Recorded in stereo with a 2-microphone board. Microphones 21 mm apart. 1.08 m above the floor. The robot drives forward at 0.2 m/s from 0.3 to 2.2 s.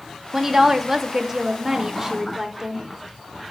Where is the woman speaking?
20° right (ahead or behind), 0.6 m; by 2.9 s 15° right (ahead or behind), 0.8 m.